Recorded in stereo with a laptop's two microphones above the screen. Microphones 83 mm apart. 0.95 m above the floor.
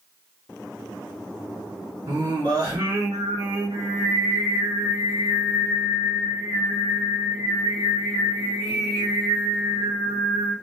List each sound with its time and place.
2.1 s singing: 75° right (ahead or behind), 3 m